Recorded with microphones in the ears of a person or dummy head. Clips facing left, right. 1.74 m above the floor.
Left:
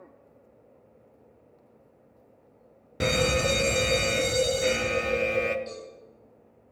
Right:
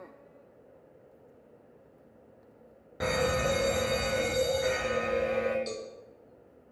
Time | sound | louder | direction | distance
3.0 | a fire alarm | left 3 dB | 30° left (ahead or behind) | 0.6 m
5.7 | a cowbell | right 2 dB | 35° right (ahead or behind) | 1.5 m